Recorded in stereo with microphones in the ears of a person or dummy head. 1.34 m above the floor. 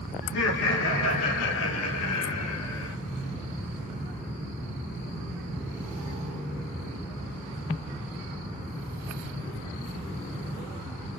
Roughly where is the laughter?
Left.